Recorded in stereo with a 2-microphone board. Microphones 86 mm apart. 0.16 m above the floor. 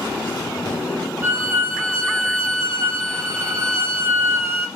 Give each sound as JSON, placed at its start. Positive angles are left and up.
{"t": 1.2, "sound": "a violin", "side_deg": -30, "distance_m": 1.1}